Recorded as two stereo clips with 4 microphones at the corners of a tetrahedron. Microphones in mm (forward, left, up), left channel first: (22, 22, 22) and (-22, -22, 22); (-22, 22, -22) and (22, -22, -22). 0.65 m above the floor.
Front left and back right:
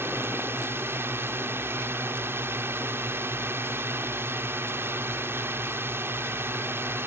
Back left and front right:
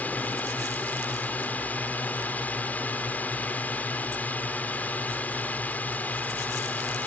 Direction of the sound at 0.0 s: 170° right.